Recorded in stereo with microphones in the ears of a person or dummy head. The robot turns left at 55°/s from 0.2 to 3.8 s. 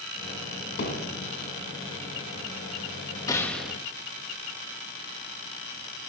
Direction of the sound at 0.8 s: 60° left (ahead or behind).